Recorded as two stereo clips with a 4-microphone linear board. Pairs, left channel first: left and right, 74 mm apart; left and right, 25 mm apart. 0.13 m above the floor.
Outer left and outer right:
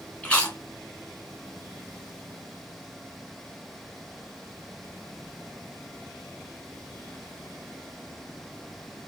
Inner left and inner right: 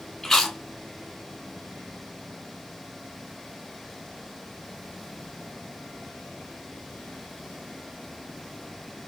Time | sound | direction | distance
0.2 | chewing | 15° left (ahead or behind) | 1.8 m